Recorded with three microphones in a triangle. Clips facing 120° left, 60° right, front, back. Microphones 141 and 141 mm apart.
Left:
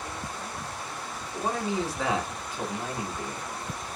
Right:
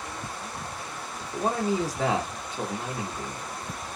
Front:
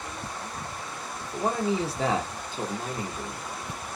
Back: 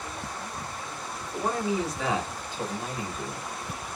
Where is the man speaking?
65° right, 1.1 m; by 3.5 s 20° left, 1.4 m.